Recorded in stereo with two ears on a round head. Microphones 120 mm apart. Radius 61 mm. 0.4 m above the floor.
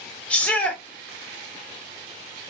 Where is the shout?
10° left (ahead or behind), 0.8 m.